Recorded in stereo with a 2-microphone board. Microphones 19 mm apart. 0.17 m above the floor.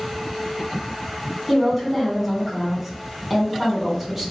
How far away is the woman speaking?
About 1.5 m.